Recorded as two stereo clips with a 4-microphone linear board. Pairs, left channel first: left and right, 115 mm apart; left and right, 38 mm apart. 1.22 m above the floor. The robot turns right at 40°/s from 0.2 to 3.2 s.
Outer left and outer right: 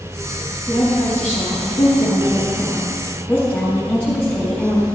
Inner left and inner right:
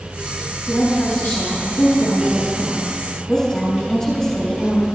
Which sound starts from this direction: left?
A woman speaking, at 0.7 s.